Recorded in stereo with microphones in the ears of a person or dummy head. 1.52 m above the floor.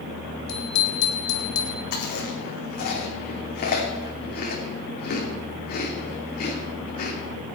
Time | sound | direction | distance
0.5 | a bicycle bell | 65° left (ahead or behind) | 2.5 m
1.9 | chewing | 50° left (ahead or behind) | 3 m